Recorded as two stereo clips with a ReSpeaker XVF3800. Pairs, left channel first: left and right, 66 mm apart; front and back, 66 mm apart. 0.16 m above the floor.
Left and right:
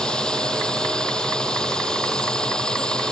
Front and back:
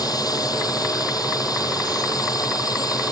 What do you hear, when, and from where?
0.0 s a drone: 15° left